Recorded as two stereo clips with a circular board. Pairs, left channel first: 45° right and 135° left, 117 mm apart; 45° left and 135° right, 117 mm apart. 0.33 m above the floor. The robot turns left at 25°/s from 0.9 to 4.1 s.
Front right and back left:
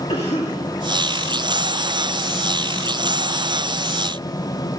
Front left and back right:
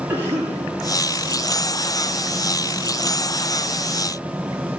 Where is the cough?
65° right, 7.5 m.